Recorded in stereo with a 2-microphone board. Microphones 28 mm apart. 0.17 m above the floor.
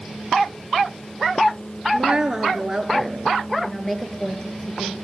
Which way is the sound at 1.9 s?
30° right (ahead or behind).